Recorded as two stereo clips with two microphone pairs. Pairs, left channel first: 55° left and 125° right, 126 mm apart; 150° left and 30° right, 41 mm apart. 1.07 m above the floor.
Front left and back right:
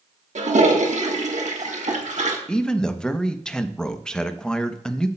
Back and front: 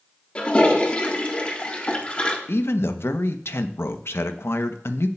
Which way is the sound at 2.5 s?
140° left.